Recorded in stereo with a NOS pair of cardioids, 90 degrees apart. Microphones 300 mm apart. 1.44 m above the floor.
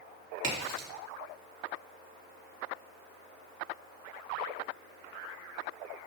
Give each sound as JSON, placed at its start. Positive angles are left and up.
{"t": 0.4, "sound": "a crack", "azimuth_deg": -55, "distance_m": 3.5}